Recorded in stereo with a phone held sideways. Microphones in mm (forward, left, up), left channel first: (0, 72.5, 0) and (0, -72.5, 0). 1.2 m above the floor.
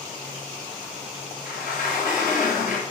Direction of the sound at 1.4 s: 65° left (ahead or behind).